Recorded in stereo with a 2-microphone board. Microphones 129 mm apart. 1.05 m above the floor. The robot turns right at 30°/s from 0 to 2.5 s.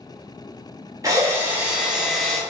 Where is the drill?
30° right, 0.7 m; by 2.4 s 10° left, 0.7 m.